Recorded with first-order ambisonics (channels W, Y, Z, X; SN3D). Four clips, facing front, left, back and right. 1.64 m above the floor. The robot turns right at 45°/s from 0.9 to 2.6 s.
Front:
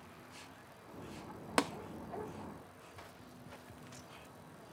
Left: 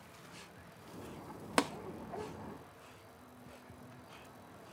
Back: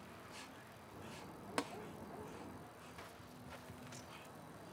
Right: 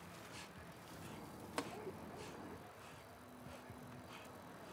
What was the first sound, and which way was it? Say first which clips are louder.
Tapping: left 13 dB, front 9 dB; 55° left.